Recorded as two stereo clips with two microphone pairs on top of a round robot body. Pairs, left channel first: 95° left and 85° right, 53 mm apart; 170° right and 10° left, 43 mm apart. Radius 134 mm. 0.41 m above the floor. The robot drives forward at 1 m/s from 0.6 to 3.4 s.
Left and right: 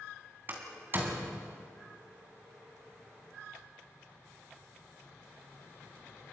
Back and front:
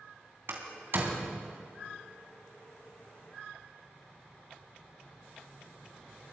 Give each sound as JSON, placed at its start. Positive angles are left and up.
{"t": 0.5, "sound": "a door slam", "azimuth_deg": -30, "distance_m": 3.0}